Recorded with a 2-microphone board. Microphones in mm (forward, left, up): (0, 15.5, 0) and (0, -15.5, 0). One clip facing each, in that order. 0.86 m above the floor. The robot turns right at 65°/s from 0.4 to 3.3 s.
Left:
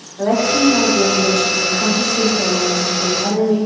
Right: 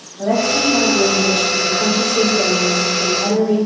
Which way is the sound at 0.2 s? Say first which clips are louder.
Left 2 dB; 130° left.